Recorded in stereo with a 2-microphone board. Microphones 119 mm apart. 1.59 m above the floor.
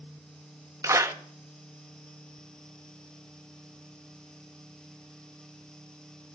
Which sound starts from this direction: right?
A clap, at 0.8 s.